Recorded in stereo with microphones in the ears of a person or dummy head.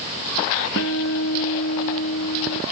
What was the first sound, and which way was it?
A guitar, 75° left (ahead or behind).